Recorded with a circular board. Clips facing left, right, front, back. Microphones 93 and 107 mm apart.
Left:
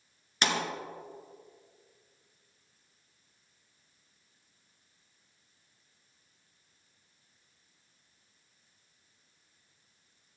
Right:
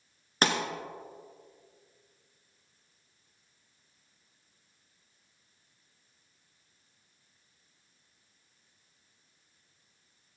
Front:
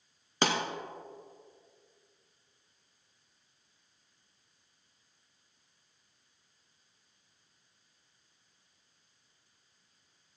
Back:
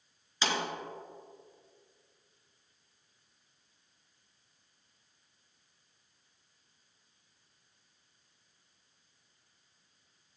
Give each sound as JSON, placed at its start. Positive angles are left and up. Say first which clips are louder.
{"t": 0.4, "sound": "a pop", "louder": "right 3 dB, front 4 dB", "azimuth_deg": -35, "distance_m": 0.9}